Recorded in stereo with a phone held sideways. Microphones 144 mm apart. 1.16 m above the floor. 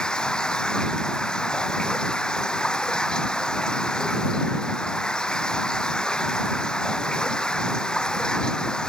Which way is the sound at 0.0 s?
5° left (ahead or behind).